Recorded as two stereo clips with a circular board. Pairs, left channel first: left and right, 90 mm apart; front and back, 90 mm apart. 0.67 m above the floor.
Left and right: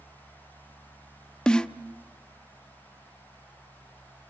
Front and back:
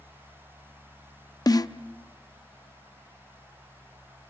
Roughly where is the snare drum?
Ahead.